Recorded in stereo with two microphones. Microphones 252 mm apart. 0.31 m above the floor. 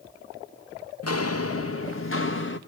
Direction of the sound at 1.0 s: 75° left (ahead or behind).